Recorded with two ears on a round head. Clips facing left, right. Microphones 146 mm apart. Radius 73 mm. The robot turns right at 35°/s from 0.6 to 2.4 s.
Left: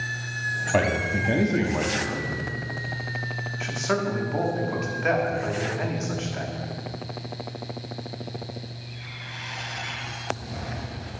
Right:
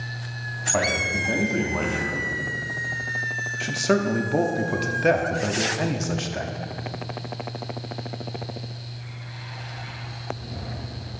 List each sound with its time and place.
0.7 s a man speaking: 130° left, 1.0 m; by 2.3 s straight behind, 1.0 m
3.6 s a man speaking: 40° right (ahead or behind), 0.9 m